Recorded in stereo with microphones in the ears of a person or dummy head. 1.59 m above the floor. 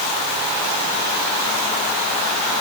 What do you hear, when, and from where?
Only background noise.